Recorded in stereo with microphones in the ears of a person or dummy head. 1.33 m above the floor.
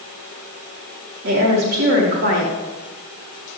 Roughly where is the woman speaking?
Right.